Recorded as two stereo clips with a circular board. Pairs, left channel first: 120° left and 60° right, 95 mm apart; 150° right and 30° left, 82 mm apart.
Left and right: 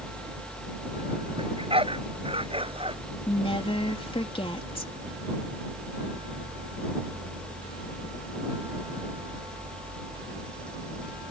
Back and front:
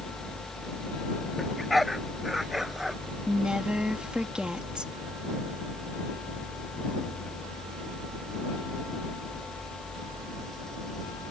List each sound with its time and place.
1.4 s a dog barking: 60° right; by 3.0 s 55° right
3.3 s a woman speaking: 110° left